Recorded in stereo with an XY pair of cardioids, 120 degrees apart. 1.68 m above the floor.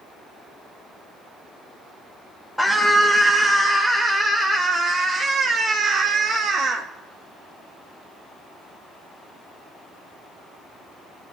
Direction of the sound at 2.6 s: 5° left.